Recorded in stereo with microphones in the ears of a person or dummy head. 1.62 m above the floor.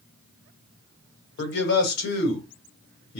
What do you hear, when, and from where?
1.4 s a man speaking: 65° left (ahead or behind), 1.2 m